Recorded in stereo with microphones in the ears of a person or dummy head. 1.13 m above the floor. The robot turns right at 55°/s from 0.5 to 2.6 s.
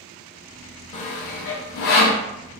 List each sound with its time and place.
0.9 s sawing: 35° left (ahead or behind), 0.6 m; by 2.2 s 40° left (ahead or behind), 0.6 m